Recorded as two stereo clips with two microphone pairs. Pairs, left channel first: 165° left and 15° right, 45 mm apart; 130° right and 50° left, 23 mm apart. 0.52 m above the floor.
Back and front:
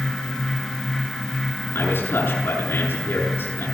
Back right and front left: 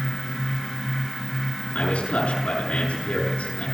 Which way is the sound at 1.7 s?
170° right.